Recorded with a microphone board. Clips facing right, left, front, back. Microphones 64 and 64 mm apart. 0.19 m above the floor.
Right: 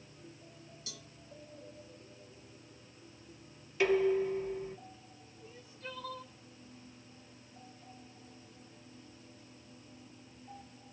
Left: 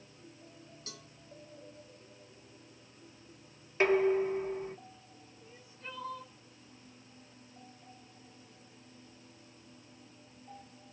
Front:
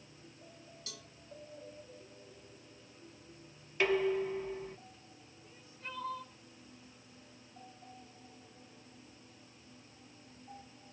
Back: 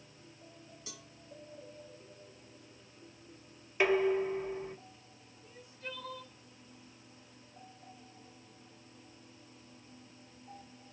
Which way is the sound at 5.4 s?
40° left.